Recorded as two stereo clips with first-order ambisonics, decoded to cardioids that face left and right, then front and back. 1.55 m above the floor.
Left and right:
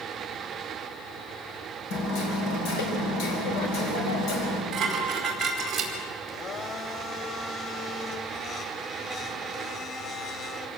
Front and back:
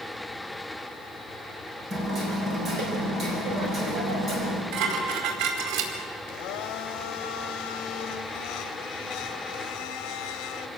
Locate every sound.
1.9 s hammering: 120° left, 5 m
4.7 s dishes clattering: 165° right, 5 m
6.3 s a blender: 30° left, 1.9 m